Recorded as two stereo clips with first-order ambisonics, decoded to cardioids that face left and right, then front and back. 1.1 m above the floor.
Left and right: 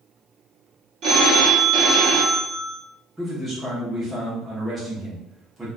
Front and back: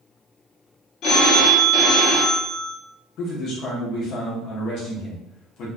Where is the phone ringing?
40° right, 0.7 m.